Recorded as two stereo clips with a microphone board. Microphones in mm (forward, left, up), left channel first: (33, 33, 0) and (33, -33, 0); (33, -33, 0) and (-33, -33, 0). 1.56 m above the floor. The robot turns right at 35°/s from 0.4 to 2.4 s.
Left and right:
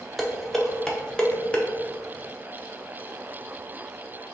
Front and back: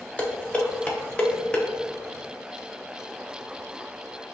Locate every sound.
0.2 s dishes clattering: straight ahead, 0.6 m; by 1.7 s 40° left, 0.6 m